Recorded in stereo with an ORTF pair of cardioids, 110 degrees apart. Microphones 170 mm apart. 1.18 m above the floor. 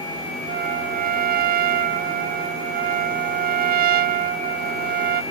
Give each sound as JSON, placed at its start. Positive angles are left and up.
{"t": 0.5, "sound": "a trumpet", "azimuth_deg": -65}